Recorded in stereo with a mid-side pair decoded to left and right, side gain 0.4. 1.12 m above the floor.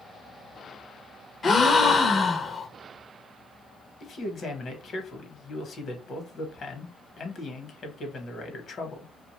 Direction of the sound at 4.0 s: 55° left.